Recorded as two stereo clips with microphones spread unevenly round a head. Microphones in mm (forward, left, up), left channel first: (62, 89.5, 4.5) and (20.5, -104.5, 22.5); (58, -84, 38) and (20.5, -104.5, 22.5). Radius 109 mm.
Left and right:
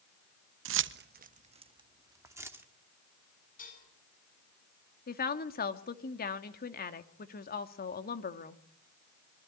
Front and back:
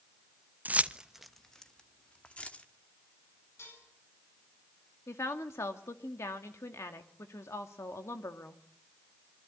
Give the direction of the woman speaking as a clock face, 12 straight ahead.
11 o'clock.